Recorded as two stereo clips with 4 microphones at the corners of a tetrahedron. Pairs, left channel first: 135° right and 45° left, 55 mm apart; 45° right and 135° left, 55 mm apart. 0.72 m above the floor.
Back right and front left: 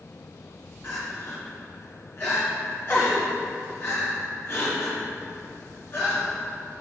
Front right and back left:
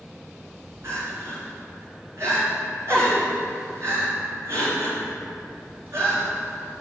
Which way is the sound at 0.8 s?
175° left.